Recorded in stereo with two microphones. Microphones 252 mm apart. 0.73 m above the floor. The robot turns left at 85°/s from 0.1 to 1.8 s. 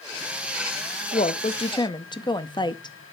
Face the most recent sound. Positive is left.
turn(degrees=15)  # may be behind; listen again after turning